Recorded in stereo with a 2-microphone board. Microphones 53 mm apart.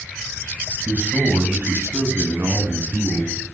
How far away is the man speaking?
About 1.6 m.